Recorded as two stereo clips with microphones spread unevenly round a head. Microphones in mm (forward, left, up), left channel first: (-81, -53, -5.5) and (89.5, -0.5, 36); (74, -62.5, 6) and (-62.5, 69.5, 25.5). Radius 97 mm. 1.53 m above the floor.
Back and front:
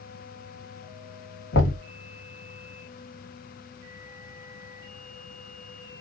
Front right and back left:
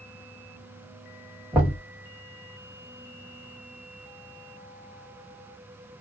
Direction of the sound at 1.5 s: 140° right.